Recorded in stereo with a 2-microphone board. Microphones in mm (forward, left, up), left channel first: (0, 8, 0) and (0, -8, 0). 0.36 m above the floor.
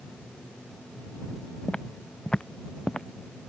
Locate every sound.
1.7 s footsteps: 85° left